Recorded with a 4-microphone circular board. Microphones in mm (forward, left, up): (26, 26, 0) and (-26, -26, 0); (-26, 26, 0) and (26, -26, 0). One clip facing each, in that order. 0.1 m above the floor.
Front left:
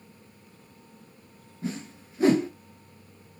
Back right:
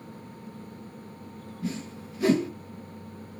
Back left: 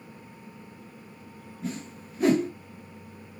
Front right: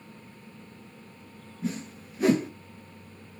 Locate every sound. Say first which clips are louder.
1.6 s a whoosh: even, front right 2 dB; 40° left, 1.0 m